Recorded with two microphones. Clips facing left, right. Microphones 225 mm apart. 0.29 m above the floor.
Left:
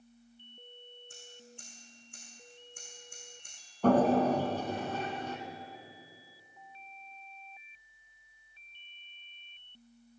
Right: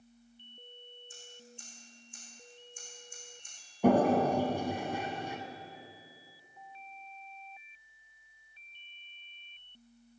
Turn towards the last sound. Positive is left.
turn(degrees=-15)  # may be behind; listen again after turning